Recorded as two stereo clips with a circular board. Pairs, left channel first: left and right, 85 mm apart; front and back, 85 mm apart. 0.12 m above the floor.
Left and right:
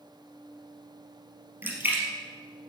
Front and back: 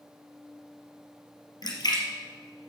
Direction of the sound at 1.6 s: 25° right.